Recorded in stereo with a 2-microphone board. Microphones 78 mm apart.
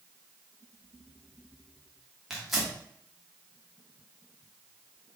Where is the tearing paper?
Centre (ahead or behind), 0.9 m.